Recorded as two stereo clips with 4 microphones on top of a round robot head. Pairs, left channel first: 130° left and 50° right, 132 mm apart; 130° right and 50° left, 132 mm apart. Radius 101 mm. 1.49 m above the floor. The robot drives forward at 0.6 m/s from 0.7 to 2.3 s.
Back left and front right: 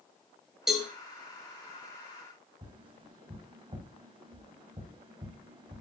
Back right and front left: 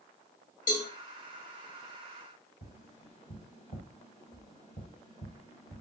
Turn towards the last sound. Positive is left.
turn(degrees=-95)